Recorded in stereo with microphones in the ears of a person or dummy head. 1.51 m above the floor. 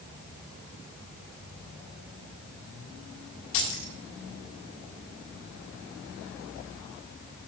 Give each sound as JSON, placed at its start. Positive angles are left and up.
{"t": 3.5, "sound": "keys jangling", "side_deg": 60, "distance_m": 1.4}